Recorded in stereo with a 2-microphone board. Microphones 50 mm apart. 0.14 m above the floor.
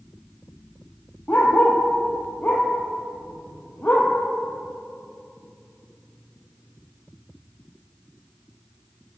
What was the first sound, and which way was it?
A dog barking, 40° left (ahead or behind).